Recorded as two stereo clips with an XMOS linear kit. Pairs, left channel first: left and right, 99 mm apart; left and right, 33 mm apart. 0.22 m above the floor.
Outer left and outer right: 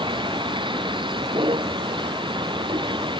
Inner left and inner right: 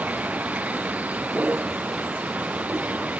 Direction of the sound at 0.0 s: 55° right (ahead or behind).